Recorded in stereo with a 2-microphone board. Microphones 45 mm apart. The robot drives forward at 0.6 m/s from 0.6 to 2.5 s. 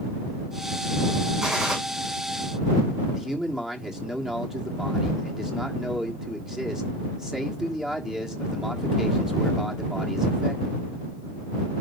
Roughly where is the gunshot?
Centre.